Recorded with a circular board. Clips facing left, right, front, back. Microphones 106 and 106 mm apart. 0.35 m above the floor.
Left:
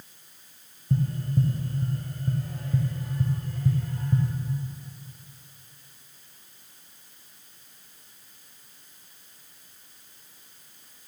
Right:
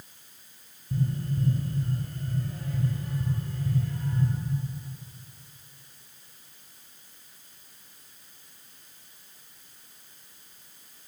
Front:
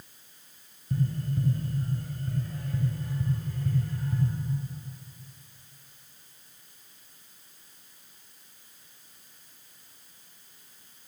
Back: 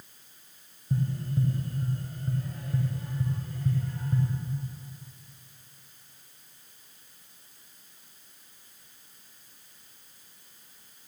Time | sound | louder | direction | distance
0.9 | tapping | left 3 dB, even | 110° left | 0.8 m